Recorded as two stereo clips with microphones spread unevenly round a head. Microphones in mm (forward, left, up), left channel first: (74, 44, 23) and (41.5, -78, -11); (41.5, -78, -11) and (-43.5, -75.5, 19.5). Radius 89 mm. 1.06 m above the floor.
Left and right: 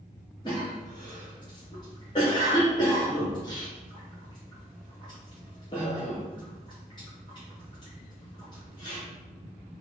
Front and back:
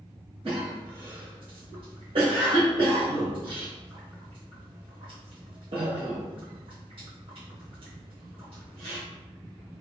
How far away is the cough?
About 0.9 m.